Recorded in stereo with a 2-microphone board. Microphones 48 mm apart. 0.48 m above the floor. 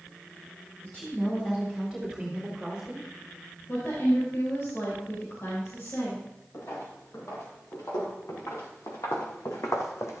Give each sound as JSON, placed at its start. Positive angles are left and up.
{"t": 0.8, "sound": "a woman speaking", "side_deg": 20, "distance_m": 3.0}
{"t": 3.7, "sound": "a woman speaking", "side_deg": 60, "distance_m": 4.0}
{"t": 6.5, "sound": "footsteps", "side_deg": 85, "distance_m": 5.0}